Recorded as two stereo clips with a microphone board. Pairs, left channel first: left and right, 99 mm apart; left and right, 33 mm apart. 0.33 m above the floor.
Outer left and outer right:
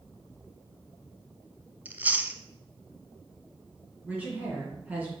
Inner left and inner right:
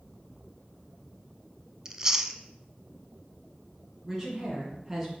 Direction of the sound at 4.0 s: 15° right (ahead or behind).